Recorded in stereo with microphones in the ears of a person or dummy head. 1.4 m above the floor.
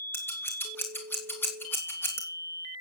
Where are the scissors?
15° left (ahead or behind), 2.5 m.